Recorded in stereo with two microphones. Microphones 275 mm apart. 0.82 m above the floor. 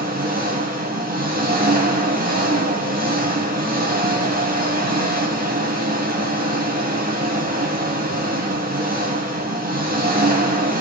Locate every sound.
0.0 s an engine running: 35° right (ahead or behind), 3 m